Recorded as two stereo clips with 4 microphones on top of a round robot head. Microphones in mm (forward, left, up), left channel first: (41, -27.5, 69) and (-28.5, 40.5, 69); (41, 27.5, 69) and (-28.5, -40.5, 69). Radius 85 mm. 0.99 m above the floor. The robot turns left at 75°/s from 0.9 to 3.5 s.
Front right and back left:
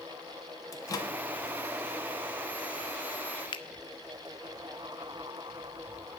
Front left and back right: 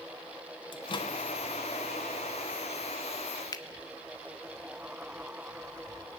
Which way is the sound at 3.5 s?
5° right.